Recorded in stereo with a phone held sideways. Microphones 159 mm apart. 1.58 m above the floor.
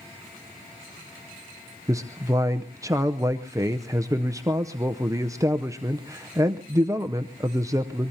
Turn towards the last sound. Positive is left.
turn(degrees=-20)  # may be behind; listen again after turning